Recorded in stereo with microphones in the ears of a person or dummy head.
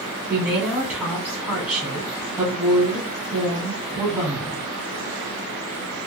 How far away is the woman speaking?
About 1.0 m.